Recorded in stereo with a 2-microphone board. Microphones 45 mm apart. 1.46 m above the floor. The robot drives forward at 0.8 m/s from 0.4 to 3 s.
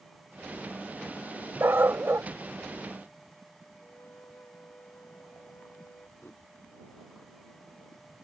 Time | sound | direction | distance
1.6 | a dog barking | 60° right (ahead or behind) | ?
3.8 | a flute | 50° left (ahead or behind) | ?
6.2 | a whoosh | 60° left (ahead or behind) | ?